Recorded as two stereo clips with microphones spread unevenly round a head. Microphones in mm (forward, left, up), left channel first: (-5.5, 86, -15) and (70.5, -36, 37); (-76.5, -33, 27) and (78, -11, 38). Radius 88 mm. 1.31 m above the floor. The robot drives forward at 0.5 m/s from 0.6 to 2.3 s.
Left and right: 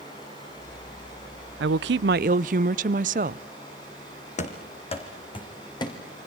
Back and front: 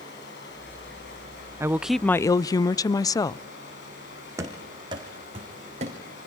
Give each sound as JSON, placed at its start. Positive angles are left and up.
{"t": 0.0, "sound": "running water", "azimuth_deg": -170, "distance_m": 10.0}
{"t": 1.6, "sound": "a woman speaking", "azimuth_deg": -65, "distance_m": 0.5}
{"t": 4.4, "sound": "running footsteps", "azimuth_deg": 80, "distance_m": 3.5}